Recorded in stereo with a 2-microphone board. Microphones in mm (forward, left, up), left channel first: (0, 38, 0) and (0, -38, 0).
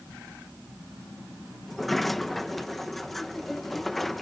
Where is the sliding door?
5° left (ahead or behind).